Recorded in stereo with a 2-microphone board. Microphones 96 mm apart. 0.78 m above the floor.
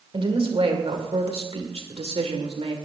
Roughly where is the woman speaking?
Right.